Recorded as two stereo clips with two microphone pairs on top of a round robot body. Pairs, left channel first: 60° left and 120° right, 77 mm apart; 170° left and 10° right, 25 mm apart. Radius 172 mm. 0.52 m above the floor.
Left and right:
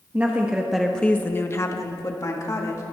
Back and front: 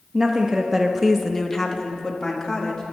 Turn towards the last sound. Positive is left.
turn(degrees=105)